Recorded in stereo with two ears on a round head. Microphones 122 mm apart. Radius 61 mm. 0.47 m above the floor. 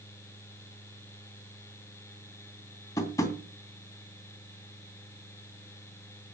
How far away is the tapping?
About 2.5 m.